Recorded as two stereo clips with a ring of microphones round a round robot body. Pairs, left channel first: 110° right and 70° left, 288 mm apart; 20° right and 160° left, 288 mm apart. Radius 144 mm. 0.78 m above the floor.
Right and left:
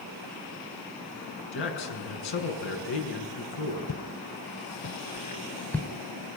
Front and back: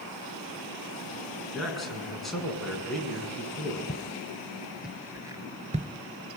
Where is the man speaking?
110° right, 6.5 m.